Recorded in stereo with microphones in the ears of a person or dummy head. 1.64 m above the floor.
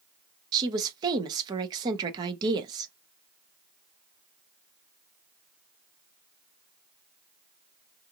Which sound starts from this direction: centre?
A woman speaking, at 0.5 s.